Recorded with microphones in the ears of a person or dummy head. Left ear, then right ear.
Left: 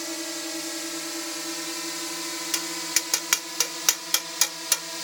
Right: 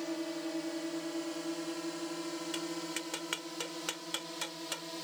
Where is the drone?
70° left (ahead or behind); by 5.0 s 55° left (ahead or behind).